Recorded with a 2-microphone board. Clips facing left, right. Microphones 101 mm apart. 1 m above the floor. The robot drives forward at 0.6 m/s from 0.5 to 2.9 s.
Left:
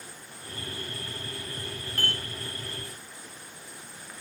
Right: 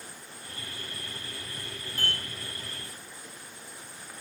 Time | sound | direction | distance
2.0 | dishes clattering | 70° left (ahead or behind) | 1.3 m